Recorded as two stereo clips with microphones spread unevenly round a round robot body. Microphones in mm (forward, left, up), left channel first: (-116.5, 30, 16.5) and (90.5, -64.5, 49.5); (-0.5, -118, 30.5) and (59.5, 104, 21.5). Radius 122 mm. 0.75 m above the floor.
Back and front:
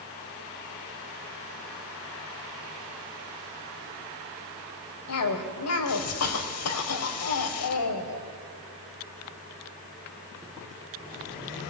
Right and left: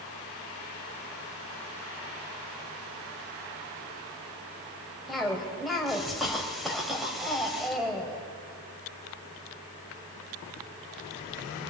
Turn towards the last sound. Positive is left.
turn(degrees=165)